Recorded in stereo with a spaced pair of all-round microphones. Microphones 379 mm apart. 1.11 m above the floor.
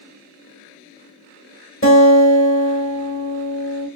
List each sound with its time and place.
1.8 s a guitar: 35° left (ahead or behind), 1.1 m